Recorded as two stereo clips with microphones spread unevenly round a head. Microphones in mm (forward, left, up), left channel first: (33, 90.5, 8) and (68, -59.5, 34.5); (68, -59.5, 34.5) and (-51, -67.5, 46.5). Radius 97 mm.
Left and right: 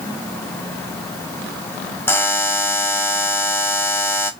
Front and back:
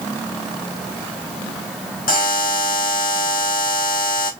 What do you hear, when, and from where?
2.1 s a buzzer: 25° left, 0.9 m